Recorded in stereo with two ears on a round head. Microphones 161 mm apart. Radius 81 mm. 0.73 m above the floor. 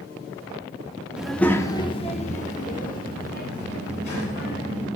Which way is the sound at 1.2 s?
5° right (ahead or behind).